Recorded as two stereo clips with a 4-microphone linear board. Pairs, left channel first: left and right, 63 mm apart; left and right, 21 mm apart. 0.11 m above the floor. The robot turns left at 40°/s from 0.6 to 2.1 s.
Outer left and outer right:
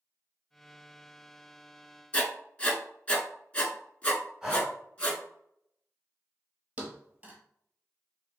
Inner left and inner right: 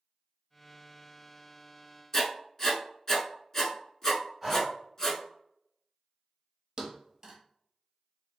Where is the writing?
20° left (ahead or behind), 0.8 m.